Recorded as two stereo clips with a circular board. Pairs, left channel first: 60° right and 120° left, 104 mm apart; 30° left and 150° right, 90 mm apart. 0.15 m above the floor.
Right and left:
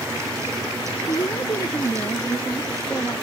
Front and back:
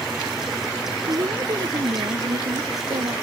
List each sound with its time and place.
1.1 s a woman speaking: 105° right; by 3.1 s 130° right